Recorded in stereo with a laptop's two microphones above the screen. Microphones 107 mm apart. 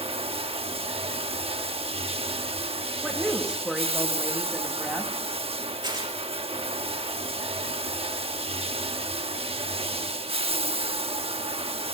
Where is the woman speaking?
10° right (ahead or behind), 2 m.